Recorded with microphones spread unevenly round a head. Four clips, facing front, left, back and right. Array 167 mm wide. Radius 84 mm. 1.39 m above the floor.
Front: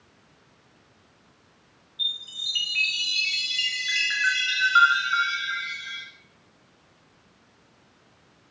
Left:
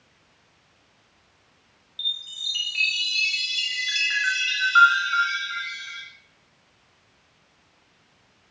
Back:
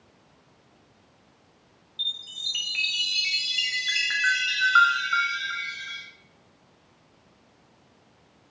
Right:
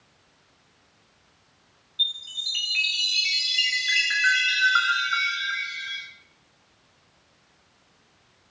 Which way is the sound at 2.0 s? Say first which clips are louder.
Right 2 dB, front 2 dB; 175° left.